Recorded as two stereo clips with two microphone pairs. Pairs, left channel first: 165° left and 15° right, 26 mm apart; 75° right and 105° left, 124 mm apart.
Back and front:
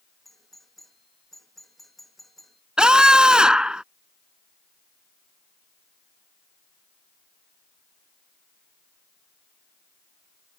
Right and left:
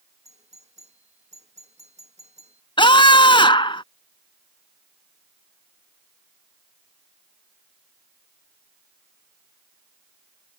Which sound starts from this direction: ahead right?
A scream, at 2.8 s.